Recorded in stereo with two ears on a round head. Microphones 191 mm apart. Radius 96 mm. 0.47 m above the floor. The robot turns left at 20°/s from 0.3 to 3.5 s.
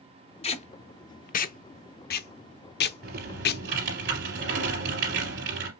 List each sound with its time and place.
0.4 s tape being pulled: 30° left (ahead or behind), 0.5 m; by 3.6 s 50° left (ahead or behind), 0.5 m
3.0 s typing on a keyboard: 45° right (ahead or behind), 3 m; by 5.7 s 55° right (ahead or behind), 3 m